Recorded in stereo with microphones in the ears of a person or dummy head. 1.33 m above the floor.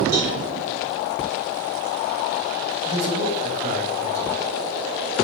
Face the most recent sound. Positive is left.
turn(degrees=-55)  # may be behind; listen again after turning